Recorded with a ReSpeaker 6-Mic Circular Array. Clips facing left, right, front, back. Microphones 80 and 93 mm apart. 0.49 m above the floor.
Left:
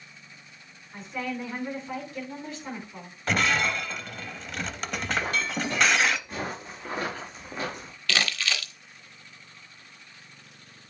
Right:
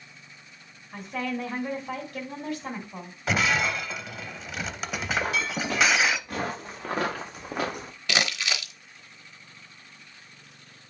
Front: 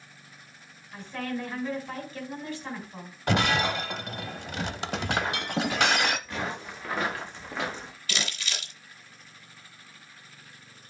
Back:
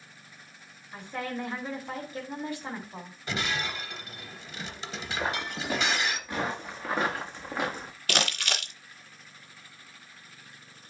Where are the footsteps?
110° right, 3.5 m; by 7.9 s 100° right, 1.6 m.